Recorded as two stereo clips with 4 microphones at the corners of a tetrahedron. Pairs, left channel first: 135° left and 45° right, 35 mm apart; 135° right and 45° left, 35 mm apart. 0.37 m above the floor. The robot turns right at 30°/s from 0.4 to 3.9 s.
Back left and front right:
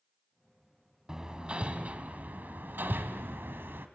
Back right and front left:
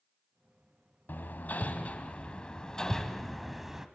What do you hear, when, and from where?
1.1 s hammering: 115° right, 1.4 m; by 3.9 s 30° right, 1.4 m